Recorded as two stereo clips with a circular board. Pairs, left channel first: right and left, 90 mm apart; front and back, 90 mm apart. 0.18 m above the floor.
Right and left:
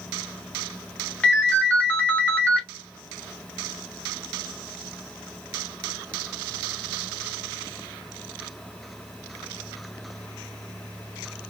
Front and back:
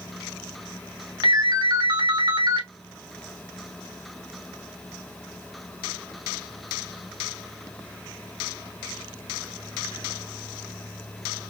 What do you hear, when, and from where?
1.2 s a ringtone: 160° right, 1.0 m